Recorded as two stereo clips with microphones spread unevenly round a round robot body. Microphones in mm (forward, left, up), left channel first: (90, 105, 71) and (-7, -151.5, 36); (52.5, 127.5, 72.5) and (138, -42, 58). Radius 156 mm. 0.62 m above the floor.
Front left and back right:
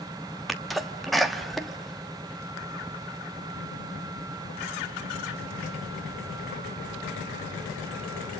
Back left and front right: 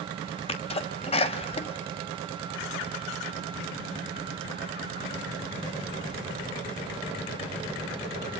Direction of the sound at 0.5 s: 165° left.